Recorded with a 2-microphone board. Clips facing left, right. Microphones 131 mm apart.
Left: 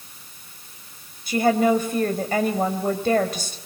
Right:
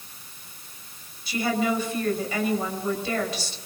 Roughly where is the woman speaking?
Left.